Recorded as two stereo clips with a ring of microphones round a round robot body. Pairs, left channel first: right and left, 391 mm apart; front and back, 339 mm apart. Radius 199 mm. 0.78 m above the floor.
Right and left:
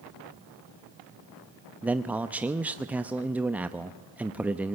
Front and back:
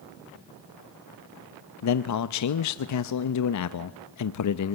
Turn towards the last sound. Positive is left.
turn(degrees=5)